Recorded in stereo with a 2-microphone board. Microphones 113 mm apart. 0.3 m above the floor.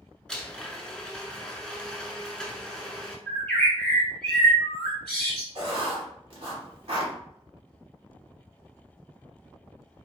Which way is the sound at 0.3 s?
5° left (ahead or behind).